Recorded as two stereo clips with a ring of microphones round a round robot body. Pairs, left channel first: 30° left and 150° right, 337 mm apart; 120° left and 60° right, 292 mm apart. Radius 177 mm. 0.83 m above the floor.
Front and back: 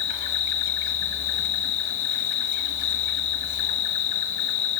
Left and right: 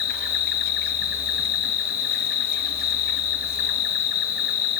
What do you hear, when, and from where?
0.0 s an insect: 60° left, 1.0 m